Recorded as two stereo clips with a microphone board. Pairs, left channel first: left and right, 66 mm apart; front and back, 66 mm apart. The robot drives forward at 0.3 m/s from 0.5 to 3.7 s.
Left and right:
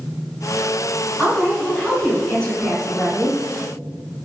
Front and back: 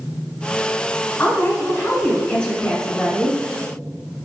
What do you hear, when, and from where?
1.2 s a woman speaking: 30° left, 1.5 m; by 3.4 s 85° left, 1.3 m